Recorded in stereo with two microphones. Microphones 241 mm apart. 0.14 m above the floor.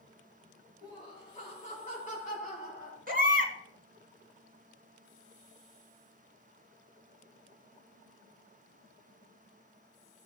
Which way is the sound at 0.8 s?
20° left (ahead or behind).